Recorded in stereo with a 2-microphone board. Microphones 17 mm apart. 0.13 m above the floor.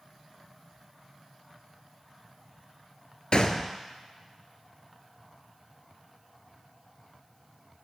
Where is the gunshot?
60° left (ahead or behind), 0.5 m.